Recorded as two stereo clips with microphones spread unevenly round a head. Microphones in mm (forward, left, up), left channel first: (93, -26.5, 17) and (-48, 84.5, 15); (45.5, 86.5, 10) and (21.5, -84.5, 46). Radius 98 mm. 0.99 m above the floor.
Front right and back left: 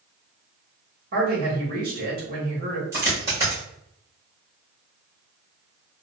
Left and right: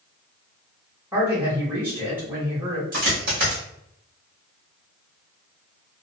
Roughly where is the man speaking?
Behind.